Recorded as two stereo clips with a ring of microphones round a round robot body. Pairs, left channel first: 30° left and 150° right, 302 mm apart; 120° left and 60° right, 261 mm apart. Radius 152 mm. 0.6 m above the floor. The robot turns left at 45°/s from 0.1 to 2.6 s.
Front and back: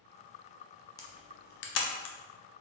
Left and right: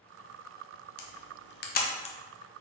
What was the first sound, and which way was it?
A camera shutter, 105° left.